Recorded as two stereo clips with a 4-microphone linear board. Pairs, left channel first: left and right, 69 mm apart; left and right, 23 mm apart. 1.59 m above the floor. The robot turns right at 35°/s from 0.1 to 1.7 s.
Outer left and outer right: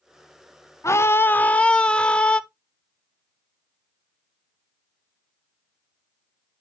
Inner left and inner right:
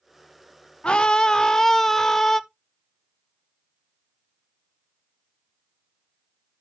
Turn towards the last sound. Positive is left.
turn(degrees=165)